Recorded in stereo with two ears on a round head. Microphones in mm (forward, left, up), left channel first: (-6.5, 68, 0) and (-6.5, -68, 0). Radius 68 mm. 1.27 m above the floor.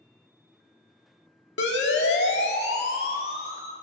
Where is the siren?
85° left, 3 m; by 3.7 s 70° left (ahead or behind), 4 m.